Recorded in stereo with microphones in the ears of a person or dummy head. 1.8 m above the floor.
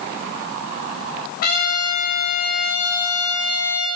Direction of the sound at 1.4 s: 50° left (ahead or behind).